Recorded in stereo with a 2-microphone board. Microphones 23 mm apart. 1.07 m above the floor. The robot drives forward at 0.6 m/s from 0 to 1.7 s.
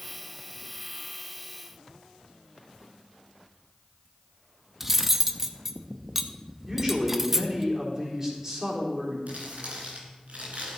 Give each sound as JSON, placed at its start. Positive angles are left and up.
{"t": 4.8, "sound": "cutlery clinking", "side_deg": -10, "distance_m": 0.7}
{"t": 6.7, "sound": "a man speaking", "side_deg": -20, "distance_m": 4.0}
{"t": 9.3, "sound": "crumpling", "side_deg": -75, "distance_m": 3.5}